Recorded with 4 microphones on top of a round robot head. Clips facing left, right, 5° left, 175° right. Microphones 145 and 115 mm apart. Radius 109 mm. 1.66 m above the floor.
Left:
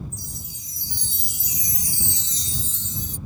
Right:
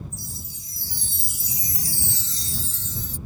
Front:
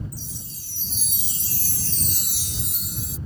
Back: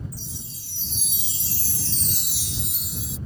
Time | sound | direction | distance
0.1 | a chime | 25° left | ?